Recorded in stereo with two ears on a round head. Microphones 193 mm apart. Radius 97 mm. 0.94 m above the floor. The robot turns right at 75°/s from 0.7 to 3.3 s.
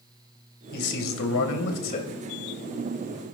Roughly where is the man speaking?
Ahead left.